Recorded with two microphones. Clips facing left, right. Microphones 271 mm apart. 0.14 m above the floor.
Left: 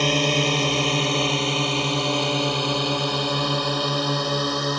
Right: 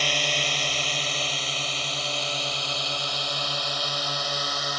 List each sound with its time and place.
0.0 s a drone: 60° left (ahead or behind)